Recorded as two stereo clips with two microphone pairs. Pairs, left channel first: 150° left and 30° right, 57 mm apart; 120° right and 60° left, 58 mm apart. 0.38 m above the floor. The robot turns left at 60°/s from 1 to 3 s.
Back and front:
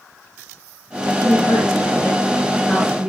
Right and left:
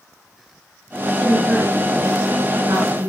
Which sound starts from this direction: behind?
A woman speaking, at 1.0 s.